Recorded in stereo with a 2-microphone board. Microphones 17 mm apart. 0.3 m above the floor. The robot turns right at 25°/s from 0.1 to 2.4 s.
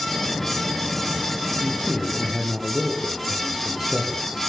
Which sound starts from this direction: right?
A man speaking, at 1.6 s.